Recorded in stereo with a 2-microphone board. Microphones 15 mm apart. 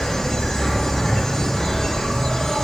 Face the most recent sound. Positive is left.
turn(degrees=55)  # may be behind; listen again after turning